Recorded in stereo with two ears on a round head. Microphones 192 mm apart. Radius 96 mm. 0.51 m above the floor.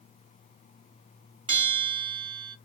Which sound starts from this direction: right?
A bell, at 1.5 s.